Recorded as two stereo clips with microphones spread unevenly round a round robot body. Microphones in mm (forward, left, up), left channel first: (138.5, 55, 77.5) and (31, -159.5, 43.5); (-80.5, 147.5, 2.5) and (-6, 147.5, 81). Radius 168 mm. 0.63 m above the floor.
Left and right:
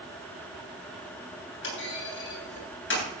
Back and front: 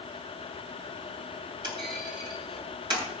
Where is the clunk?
25° left, 7.5 m.